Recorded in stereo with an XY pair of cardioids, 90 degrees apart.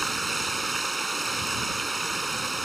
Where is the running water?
20° right.